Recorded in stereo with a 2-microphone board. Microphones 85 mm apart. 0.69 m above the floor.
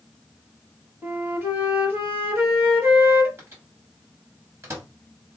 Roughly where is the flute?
Right.